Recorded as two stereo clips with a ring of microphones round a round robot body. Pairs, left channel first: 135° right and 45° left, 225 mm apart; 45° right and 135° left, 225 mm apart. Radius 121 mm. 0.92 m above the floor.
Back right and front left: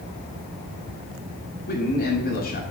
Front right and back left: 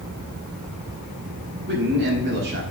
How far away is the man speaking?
About 6 m.